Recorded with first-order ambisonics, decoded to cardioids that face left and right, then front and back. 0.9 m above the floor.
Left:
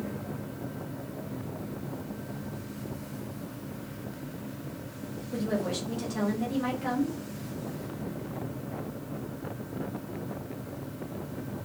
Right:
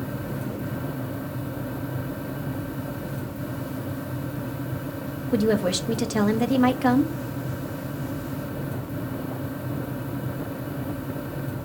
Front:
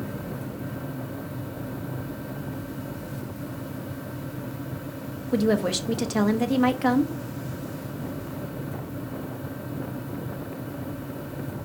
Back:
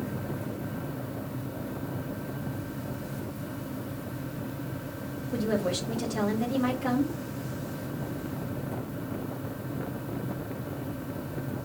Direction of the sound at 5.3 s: 45° right.